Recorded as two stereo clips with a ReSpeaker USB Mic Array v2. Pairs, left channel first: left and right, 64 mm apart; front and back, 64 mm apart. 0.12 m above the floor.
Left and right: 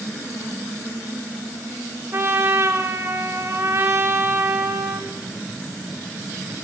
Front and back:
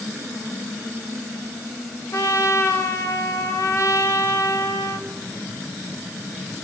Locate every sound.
2.1 s a trumpet: 40° right, 4 m